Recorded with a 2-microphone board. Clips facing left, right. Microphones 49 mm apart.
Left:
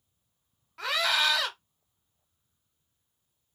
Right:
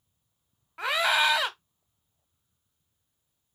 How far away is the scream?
About 0.8 m.